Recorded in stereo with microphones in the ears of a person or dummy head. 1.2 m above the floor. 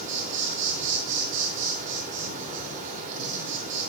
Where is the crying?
I don't hear crying.